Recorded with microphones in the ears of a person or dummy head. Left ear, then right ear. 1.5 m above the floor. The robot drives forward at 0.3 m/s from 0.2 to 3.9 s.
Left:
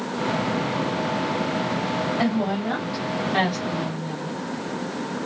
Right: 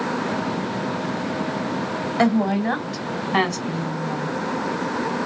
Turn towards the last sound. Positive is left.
turn(degrees=-35)  # may be behind; listen again after turning